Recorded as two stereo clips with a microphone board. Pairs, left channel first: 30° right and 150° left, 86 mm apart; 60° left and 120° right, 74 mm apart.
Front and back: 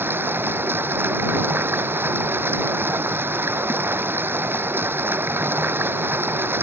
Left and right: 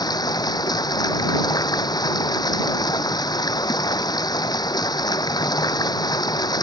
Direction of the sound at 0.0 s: 85° left.